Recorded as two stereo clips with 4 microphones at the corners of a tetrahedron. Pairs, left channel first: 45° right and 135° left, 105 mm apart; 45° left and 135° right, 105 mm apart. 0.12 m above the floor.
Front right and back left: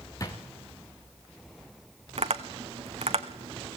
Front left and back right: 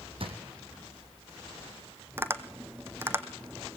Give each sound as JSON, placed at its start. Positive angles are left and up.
{"t": 0.2, "sound": "a drawer", "azimuth_deg": -105, "distance_m": 2.5}
{"t": 2.2, "sound": "tapping", "azimuth_deg": 155, "distance_m": 1.3}